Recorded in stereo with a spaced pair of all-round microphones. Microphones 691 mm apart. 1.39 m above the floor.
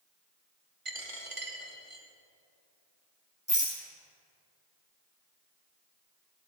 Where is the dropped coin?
50° right (ahead or behind), 1.6 m.